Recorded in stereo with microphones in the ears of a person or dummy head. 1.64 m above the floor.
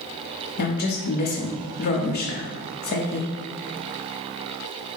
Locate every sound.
0.6 s a woman speaking: 45° left (ahead or behind), 0.8 m